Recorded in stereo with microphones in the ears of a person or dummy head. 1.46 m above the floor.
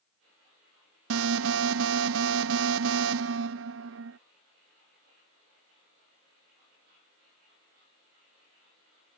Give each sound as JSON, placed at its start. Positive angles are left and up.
{"t": 1.1, "sound": "an alarm", "side_deg": -80}